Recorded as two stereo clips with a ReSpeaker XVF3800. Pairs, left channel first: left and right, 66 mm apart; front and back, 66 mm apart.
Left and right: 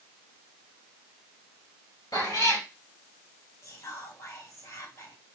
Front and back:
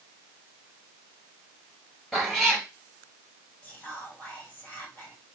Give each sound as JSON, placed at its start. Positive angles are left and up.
{"t": 2.1, "sound": "a cat meowing", "azimuth_deg": 90, "distance_m": 1.9}
{"t": 3.6, "sound": "whispering", "azimuth_deg": 60, "distance_m": 1.8}